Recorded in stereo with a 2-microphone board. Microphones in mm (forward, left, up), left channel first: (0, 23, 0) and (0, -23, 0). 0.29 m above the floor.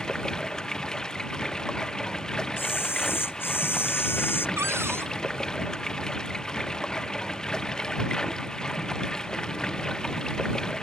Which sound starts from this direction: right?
A cupboard door, at 4.6 s.